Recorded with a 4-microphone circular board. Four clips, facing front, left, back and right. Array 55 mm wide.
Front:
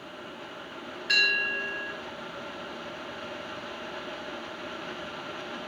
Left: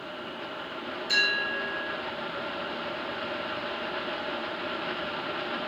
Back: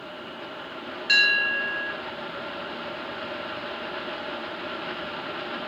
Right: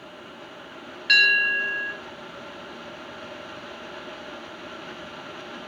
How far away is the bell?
About 3 m.